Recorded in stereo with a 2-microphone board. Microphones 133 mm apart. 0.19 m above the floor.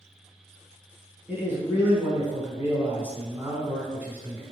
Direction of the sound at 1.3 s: 15° right (ahead or behind).